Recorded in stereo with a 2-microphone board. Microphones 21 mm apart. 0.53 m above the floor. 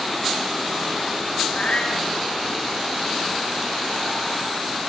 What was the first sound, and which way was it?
A cat meowing, 60° left (ahead or behind).